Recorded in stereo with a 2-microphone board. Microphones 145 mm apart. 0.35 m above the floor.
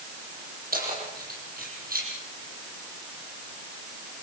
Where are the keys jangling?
75° right (ahead or behind), 9.5 m.